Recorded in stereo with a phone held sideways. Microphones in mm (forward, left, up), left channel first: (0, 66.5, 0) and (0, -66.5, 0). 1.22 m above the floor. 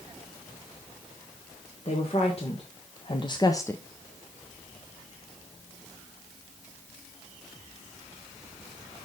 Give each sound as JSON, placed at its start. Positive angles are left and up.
{"t": 1.9, "sound": "a woman speaking", "side_deg": 45, "distance_m": 1.8}